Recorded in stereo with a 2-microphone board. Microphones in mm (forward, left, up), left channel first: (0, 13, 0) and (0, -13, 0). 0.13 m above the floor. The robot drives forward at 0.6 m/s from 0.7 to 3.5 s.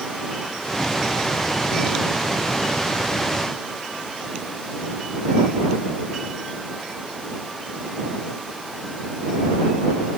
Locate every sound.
Only background noise.